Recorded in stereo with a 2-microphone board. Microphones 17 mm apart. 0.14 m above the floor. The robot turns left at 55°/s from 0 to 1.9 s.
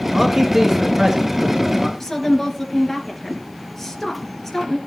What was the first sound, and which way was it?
A man speaking, 30° right.